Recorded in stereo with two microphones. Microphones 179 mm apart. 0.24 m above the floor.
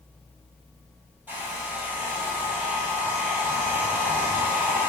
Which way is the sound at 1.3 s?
10° right (ahead or behind).